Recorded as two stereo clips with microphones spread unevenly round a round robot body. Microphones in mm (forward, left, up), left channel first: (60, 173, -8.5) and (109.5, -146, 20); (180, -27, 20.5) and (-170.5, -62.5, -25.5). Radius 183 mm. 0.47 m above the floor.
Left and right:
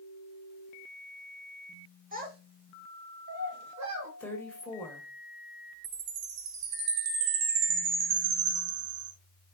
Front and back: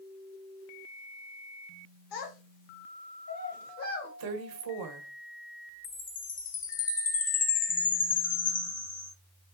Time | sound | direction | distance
2.1 | a child speaking | 15° right | 1.9 m
4.2 | a woman speaking | straight behind | 1.4 m
5.8 | a chime | 65° right | 1.6 m